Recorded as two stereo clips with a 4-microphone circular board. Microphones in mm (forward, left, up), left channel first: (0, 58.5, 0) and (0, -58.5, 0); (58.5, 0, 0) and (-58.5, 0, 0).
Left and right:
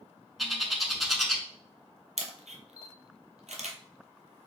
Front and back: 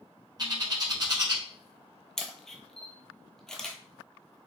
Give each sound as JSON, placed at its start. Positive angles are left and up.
{"t": 0.4, "sound": "a bird", "azimuth_deg": 180, "distance_m": 0.9}
{"t": 2.2, "sound": "a camera shutter", "azimuth_deg": -85, "distance_m": 0.8}